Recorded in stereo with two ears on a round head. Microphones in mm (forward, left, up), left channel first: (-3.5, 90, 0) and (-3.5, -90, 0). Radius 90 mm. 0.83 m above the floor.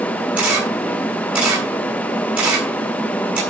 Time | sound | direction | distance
0.4 | a camera shutter | 5° right (ahead or behind) | 7.5 m